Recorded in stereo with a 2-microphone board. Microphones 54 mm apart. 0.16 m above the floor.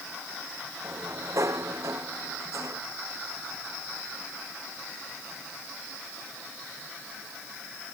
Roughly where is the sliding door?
Right.